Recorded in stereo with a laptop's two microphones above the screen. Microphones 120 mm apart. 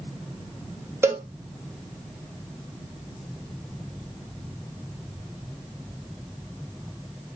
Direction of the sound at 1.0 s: 20° right (ahead or behind).